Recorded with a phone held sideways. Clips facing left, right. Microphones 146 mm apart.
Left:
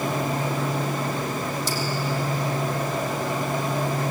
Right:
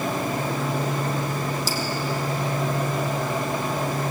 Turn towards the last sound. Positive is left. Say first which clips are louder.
# right 1 dB
turn(degrees=0)  # may be behind; listen again after turning